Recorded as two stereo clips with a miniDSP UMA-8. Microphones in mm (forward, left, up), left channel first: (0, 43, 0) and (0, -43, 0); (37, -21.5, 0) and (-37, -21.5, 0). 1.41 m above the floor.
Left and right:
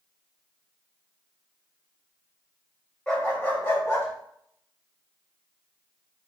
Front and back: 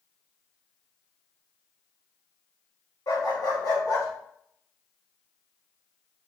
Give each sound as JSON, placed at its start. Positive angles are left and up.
{"t": 3.1, "sound": "a dog barking", "azimuth_deg": 10, "distance_m": 3.0}